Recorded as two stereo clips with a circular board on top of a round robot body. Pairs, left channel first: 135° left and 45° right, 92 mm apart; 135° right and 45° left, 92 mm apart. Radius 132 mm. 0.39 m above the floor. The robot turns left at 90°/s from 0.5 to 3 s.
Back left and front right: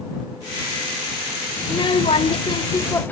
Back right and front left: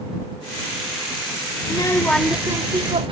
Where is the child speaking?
170° right; by 3.1 s 65° left.